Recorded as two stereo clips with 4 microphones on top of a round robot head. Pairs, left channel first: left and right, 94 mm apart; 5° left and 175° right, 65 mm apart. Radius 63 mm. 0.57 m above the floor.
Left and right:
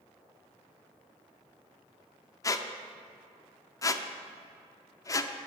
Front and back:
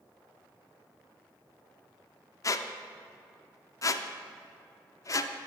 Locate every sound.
2.4 s a squeak: 40° left, 0.6 m